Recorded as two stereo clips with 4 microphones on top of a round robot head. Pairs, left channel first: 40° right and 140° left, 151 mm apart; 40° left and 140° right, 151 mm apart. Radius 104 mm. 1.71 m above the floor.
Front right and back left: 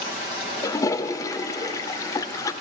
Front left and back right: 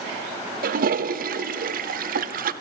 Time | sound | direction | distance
0.6 | a toilet flushing | 110° right | 0.7 m